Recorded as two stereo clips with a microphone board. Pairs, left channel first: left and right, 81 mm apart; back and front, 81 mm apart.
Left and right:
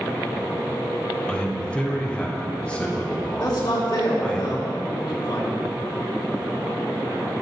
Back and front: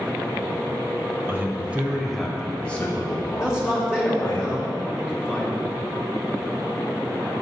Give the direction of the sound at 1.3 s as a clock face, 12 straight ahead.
11 o'clock.